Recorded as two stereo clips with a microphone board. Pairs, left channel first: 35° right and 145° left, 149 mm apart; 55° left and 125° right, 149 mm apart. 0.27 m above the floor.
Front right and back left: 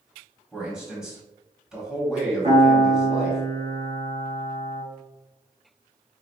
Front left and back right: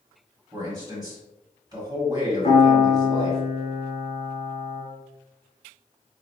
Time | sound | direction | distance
0.5 | a man speaking | 135° right | 1.4 m
2.4 | a piano | 110° left | 1.5 m